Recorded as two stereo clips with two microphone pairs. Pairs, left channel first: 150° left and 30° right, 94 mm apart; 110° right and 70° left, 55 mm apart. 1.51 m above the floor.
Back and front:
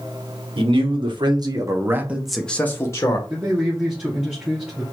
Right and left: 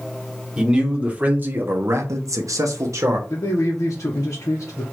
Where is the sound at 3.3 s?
105° right, 1.3 m.